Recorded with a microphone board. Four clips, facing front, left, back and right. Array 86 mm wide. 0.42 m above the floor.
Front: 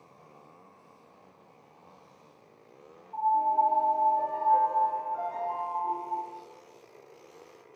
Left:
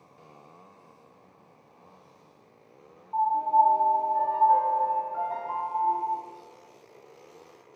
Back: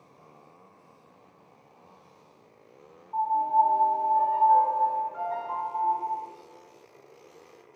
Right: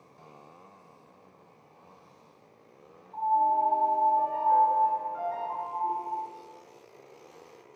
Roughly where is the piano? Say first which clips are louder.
Left 3 dB, back 2 dB; left.